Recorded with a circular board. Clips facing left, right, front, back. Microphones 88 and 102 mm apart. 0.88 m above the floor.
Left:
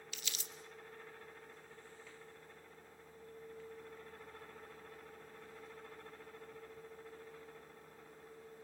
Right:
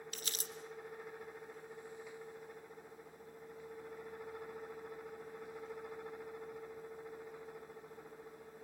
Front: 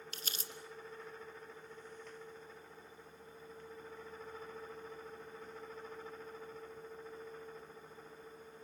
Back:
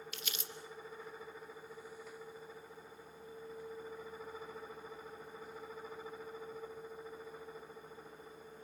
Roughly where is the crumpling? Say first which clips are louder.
Right 4 dB, back 1 dB; ahead right.